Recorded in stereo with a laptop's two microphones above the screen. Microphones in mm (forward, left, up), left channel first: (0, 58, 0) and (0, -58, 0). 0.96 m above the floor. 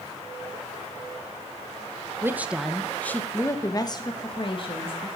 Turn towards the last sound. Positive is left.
turn(degrees=50)  # may be behind; listen again after turning